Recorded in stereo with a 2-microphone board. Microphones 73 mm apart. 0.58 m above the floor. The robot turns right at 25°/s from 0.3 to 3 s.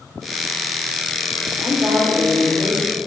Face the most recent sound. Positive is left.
turn(degrees=-5)